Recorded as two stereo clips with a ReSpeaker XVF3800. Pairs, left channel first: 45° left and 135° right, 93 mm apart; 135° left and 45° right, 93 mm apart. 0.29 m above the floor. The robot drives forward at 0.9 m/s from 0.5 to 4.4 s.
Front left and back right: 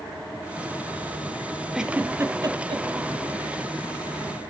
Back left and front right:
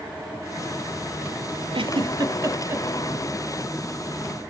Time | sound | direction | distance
1.7 | a giggle | 50° right | 1.0 m